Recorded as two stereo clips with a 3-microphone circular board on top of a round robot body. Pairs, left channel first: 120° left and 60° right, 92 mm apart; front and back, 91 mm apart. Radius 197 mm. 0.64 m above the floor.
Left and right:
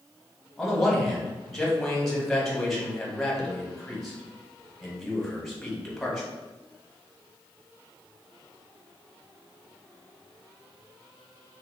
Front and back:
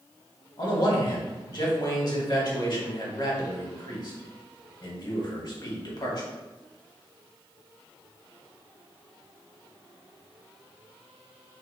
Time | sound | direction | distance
0.6 | a man speaking | 35° left | 1.4 m